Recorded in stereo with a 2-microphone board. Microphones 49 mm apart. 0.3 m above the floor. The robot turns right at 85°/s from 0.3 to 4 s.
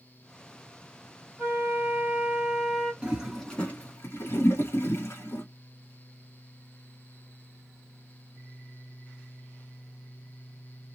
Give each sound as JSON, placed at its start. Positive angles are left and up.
{"t": 1.4, "sound": "a flute", "azimuth_deg": -115, "distance_m": 2.0}
{"t": 3.0, "sound": "a toilet flushing", "side_deg": -25, "distance_m": 1.2}